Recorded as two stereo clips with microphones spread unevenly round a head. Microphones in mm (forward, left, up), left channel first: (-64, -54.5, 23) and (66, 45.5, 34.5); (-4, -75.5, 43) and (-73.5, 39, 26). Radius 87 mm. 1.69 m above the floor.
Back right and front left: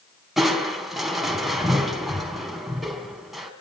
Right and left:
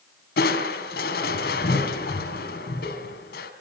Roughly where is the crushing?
Ahead right.